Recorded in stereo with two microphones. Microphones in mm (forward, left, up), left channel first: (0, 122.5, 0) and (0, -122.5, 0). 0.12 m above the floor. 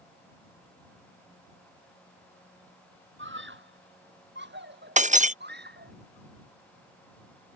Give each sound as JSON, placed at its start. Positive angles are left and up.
{"t": 3.2, "sound": "a scream", "side_deg": -55}
{"t": 5.0, "sound": "breaking glass", "side_deg": -30}